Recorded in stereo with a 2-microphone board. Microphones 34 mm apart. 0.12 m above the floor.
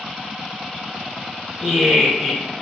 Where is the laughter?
5° right (ahead or behind), 1.4 m.